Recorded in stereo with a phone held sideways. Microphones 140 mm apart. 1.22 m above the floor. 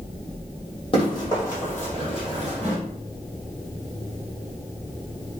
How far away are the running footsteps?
About 1.5 m.